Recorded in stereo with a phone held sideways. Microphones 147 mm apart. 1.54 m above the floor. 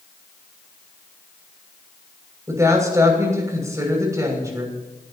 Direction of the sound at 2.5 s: 20° right (ahead or behind).